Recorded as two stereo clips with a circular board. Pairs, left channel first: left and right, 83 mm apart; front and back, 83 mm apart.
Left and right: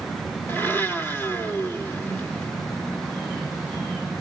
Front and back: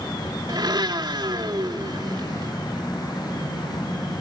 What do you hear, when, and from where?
0.5 s a blender: 155° left, 1.9 m